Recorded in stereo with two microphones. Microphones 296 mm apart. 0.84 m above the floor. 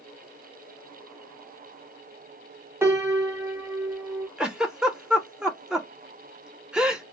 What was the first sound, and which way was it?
A piano, 10° right (ahead or behind).